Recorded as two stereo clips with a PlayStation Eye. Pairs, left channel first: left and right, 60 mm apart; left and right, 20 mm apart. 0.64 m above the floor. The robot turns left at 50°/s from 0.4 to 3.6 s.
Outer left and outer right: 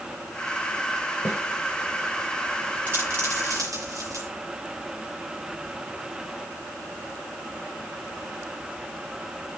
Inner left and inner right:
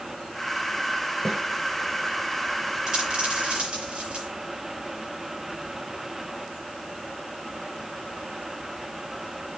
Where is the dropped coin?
30° right (ahead or behind), 6.5 m; by 4.3 s 65° right (ahead or behind), 6.5 m.